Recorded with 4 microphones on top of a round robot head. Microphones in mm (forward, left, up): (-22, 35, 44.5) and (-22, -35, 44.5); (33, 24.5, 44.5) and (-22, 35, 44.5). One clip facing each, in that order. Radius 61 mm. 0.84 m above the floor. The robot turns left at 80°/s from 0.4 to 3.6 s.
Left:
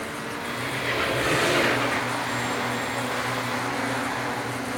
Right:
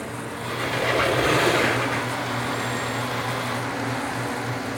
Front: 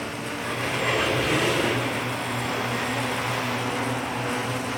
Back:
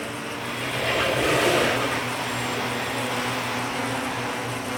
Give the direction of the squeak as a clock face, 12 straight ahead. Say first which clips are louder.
Right 6 dB, front 1 dB; 2 o'clock.